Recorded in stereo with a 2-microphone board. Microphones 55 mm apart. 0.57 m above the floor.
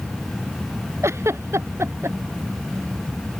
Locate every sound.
1.0 s a giggle: 55° right (ahead or behind)